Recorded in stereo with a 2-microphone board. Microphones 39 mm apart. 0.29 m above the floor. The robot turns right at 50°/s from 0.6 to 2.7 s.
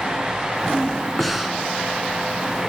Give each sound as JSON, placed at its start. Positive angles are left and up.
{"t": 1.2, "sound": "breathing", "side_deg": 5, "distance_m": 0.7}